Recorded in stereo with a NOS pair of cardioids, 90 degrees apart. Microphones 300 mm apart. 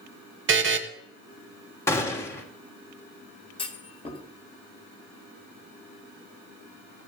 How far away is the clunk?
About 1.7 m.